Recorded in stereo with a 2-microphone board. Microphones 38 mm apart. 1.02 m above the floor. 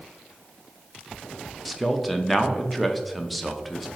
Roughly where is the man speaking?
Centre.